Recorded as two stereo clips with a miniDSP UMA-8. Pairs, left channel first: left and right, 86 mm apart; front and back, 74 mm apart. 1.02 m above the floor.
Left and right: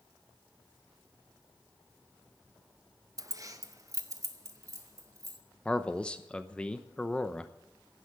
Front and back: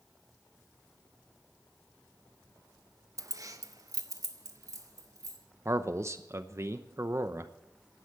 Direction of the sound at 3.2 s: 135° right.